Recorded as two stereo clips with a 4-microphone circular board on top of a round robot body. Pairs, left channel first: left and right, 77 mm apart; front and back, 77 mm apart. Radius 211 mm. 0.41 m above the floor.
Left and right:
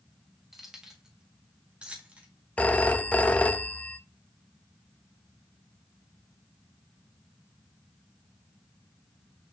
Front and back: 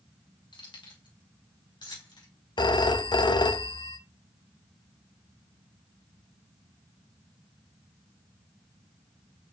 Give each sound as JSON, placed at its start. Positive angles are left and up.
{"t": 0.5, "sound": "keys jangling", "azimuth_deg": -5, "distance_m": 3.0}
{"t": 2.6, "sound": "a phone ringing", "azimuth_deg": 15, "distance_m": 0.7}